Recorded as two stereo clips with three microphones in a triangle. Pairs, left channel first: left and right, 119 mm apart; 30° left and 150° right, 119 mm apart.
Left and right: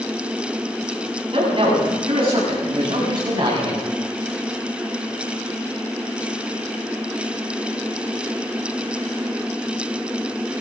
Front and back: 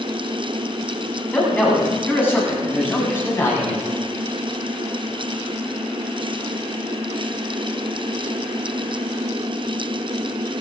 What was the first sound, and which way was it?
A man speaking, 45° right.